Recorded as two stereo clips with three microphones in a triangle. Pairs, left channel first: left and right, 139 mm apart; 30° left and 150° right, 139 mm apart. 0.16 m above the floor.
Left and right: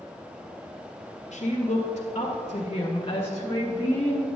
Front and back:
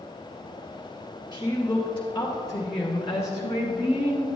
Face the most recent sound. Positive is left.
turn(degrees=10)